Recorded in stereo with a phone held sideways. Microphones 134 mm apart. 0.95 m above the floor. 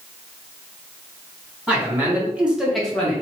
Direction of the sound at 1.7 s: 15° right (ahead or behind).